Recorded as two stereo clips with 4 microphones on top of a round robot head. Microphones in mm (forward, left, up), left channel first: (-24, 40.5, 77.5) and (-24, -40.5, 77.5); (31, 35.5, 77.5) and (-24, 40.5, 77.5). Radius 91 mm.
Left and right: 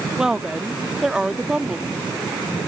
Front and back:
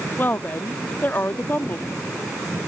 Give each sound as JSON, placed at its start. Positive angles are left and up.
{"t": 0.2, "sound": "a woman speaking", "azimuth_deg": -15}